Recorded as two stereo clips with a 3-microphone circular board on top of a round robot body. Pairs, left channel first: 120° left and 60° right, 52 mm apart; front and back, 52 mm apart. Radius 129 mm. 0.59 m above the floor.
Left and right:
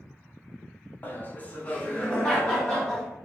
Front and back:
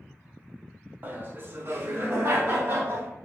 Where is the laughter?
155° left, 1.1 m; by 3.1 s 160° right, 1.7 m.